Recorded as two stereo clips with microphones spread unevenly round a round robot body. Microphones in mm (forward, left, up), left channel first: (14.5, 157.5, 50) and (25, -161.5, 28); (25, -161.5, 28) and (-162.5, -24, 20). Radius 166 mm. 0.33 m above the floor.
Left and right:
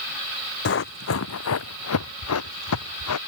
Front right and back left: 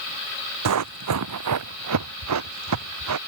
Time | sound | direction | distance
0.7 | running footsteps | 150° left | ?